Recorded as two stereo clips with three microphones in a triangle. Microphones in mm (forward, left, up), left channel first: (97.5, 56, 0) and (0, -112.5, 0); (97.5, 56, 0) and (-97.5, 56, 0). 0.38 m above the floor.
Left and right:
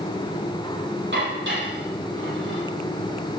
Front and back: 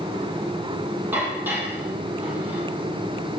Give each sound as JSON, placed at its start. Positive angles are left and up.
{"t": 1.1, "sound": "dishes clattering", "azimuth_deg": -100, "distance_m": 9.0}